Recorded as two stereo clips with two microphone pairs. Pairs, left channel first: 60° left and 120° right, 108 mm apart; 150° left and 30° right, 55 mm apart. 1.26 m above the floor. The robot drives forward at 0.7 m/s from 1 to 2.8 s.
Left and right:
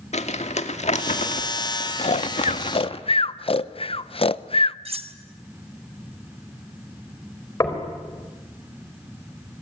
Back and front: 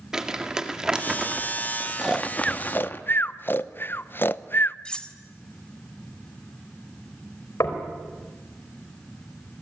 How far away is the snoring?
About 0.7 m.